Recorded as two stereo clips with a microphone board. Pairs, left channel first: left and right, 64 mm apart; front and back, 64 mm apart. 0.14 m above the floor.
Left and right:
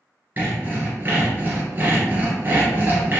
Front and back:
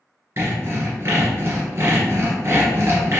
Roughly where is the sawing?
Behind right.